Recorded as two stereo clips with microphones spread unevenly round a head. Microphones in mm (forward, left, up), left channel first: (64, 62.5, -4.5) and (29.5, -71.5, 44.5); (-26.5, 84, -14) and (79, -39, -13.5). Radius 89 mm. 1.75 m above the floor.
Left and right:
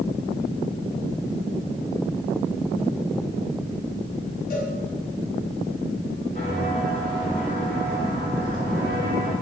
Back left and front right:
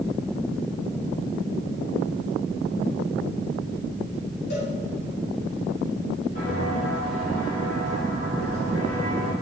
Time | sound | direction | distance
4.5 | a cowbell | 115° left | 3.5 m
6.3 | footsteps | 140° left | 3.5 m